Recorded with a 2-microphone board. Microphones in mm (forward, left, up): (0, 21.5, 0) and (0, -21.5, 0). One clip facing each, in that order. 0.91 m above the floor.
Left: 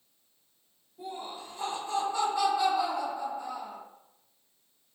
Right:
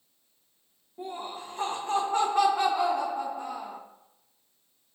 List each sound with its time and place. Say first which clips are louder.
1.0 s laughter: right 3 dB; 50° right (ahead or behind), 0.9 m